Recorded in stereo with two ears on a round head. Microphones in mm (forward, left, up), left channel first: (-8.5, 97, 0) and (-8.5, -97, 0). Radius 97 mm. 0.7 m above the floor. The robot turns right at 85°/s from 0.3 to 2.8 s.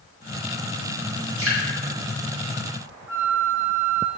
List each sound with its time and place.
1.4 s dripping: 70° right (ahead or behind), 3 m; by 1.6 s 65° right (ahead or behind), 3 m
3.1 s a flute: 15° right (ahead or behind), 1.0 m